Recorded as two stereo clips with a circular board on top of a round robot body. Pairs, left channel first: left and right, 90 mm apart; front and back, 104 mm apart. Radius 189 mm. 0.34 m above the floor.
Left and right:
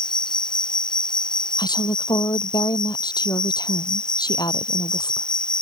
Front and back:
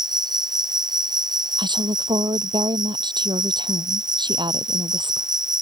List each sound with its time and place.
0.0 s an insect: 130° left
1.6 s a woman speaking: 135° left